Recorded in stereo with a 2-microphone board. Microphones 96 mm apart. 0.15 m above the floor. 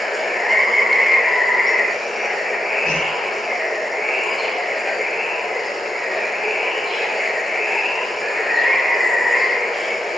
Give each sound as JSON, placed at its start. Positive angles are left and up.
{"t": 0.0, "sound": "running water", "side_deg": 0, "distance_m": 1.3}
{"t": 2.8, "sound": "a whoosh", "side_deg": -30, "distance_m": 8.5}